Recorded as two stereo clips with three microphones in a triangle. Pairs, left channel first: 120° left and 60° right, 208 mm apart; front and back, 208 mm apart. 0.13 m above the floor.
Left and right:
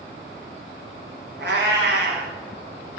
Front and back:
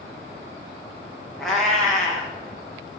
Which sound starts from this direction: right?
A cat meowing, at 1.4 s.